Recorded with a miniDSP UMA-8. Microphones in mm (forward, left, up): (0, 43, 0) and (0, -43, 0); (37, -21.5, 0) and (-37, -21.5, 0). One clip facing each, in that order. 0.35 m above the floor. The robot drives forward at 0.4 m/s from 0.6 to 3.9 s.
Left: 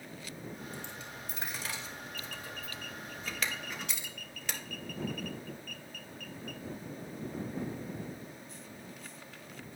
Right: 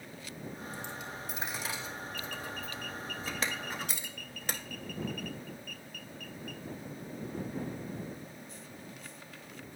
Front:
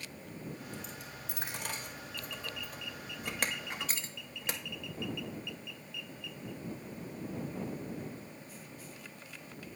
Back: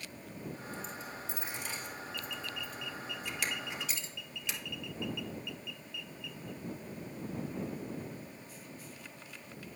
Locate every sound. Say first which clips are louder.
0.7 s a dropped coin: right 3 dB, back 3 dB; 20° right, 1.9 m; by 4.6 s 45° right, 0.8 m